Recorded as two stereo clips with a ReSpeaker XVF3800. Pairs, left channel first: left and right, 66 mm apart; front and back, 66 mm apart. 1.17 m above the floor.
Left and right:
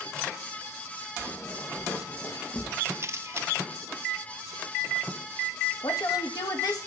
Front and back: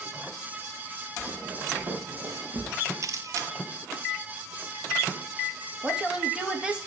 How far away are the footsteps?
About 5.5 m.